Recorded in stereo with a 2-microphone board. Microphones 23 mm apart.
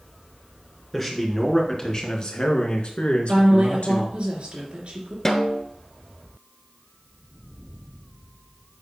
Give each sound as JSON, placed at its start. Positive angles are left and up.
{"t": 0.9, "sound": "a man speaking", "side_deg": 10, "distance_m": 2.0}
{"t": 3.3, "sound": "a woman speaking", "side_deg": -50, "distance_m": 3.0}
{"t": 5.2, "sound": "a snare drum", "side_deg": 15, "distance_m": 0.9}